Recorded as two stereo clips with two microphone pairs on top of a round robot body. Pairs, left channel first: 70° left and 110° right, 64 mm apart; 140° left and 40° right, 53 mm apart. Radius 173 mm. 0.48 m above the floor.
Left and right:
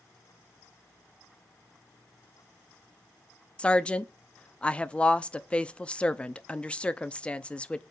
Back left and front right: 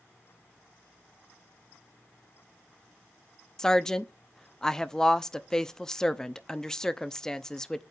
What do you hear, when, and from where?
3.6 s a woman speaking: 105° left, 0.9 m